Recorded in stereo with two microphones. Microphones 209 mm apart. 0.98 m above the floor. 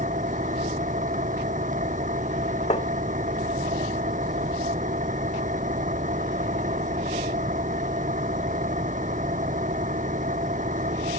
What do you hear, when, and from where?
0.0 s an engine running: 40° right (ahead or behind)
2.7 s tapping: 35° left (ahead or behind)